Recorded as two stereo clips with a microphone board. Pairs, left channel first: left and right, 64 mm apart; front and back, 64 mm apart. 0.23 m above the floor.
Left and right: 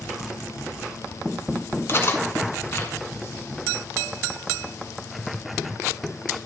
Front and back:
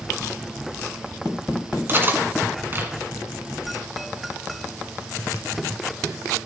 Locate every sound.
1.9 s cutlery clinking: 130° left, 1.5 m